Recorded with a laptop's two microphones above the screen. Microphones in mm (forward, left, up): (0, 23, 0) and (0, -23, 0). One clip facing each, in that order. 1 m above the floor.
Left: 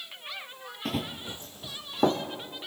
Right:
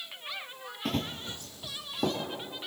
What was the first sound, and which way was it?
Running footsteps, centre (ahead or behind).